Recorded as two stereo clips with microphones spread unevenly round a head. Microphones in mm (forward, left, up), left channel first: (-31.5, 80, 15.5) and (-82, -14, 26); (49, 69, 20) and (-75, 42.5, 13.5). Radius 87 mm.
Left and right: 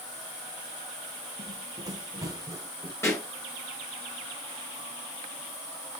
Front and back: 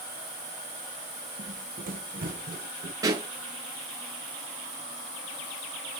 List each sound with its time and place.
1.4 s running footsteps: 160° right, 3.5 m; by 2.9 s 175° left, 3 m
3.0 s a pop: 130° left, 7.5 m